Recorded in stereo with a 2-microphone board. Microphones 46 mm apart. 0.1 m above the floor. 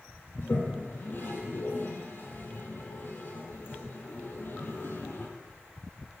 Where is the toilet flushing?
50° left (ahead or behind), 0.8 m.